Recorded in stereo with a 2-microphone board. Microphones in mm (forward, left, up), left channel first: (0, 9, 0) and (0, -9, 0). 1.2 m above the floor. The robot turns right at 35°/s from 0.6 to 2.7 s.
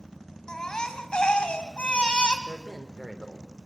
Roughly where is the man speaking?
Right.